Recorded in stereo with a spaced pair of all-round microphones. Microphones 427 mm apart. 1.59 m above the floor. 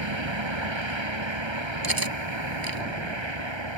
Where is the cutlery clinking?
50° right (ahead or behind).